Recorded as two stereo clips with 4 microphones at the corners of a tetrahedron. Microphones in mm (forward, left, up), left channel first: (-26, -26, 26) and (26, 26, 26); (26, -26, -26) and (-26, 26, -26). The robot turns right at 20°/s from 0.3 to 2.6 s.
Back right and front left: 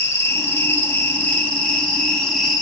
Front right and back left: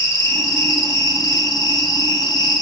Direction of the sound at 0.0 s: 90° right.